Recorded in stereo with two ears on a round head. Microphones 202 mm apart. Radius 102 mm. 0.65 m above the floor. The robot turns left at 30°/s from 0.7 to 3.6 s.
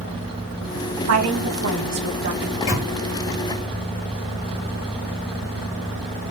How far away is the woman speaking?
About 1.6 m.